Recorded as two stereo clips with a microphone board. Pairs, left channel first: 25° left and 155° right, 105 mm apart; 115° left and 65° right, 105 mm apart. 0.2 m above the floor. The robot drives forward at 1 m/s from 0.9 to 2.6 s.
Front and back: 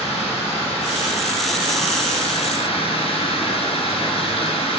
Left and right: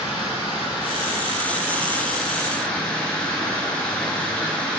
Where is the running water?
15° left, 3 m; by 4.8 s 35° left, 1.4 m.